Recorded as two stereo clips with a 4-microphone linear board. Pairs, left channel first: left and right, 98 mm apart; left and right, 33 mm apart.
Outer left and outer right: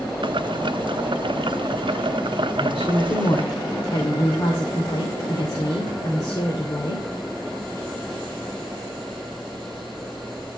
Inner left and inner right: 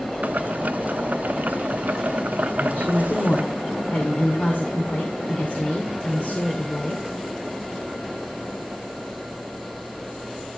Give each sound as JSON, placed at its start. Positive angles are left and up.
{"t": 0.2, "sound": "boiling", "side_deg": -60, "distance_m": 0.6}
{"t": 2.6, "sound": "a woman speaking", "side_deg": 50, "distance_m": 2.5}